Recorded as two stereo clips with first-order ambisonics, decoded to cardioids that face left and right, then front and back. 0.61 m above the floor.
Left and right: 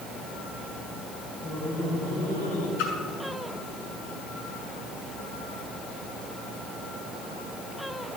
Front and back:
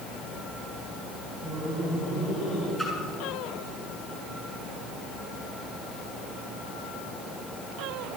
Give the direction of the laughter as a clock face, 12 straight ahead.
10 o'clock.